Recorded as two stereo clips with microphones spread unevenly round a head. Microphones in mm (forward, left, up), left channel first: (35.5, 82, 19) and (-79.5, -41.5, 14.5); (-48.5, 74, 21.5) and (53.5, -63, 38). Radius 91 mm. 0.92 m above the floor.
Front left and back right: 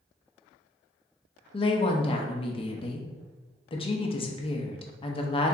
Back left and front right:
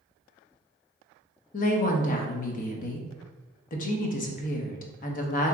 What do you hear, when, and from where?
1.5 s a woman speaking: 100° left, 0.7 m